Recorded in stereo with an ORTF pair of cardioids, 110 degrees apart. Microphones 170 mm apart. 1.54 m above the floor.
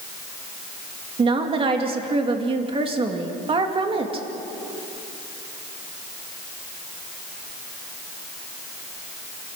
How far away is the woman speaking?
About 2.5 m.